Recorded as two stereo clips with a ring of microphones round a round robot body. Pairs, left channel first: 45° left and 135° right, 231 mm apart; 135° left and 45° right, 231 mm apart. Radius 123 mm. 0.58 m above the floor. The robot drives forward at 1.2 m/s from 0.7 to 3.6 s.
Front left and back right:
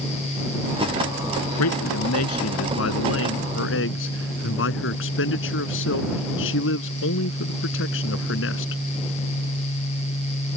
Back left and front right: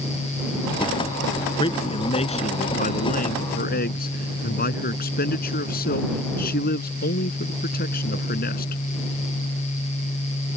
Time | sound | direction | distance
1.6 | a man speaking | 65° left | ?